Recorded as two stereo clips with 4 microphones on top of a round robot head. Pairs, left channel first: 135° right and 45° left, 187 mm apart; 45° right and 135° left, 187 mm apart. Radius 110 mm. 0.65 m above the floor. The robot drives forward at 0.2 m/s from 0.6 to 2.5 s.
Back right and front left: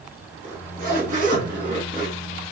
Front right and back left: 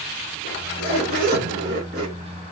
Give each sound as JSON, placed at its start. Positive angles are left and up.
{"t": 0.4, "sound": "a zipper", "azimuth_deg": 90, "distance_m": 2.0}